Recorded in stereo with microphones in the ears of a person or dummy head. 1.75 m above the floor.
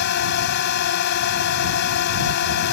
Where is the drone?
60° left (ahead or behind).